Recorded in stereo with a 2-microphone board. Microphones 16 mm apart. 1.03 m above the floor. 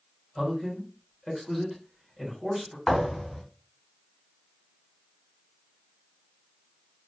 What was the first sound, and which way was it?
A man speaking, centre (ahead or behind).